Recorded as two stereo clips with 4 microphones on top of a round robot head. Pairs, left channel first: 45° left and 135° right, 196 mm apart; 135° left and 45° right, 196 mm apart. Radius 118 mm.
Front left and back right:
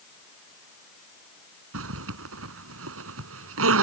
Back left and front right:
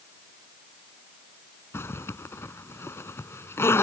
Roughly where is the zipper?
Behind right.